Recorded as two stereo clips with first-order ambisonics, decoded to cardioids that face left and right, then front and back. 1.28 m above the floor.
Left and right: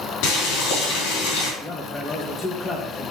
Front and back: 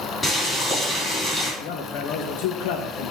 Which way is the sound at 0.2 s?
85° left.